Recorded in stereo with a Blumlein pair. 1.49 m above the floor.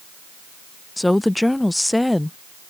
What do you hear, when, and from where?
1.0 s a woman speaking: 5° left